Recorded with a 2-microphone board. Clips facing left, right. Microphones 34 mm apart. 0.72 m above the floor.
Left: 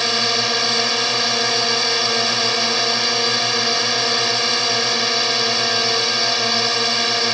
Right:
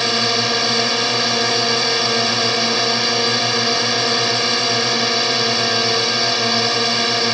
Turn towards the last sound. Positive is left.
turn(degrees=-5)  # may be behind; listen again after turning